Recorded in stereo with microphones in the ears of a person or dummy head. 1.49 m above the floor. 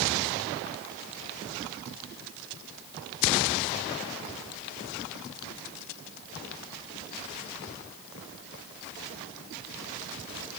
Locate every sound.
Only background noise.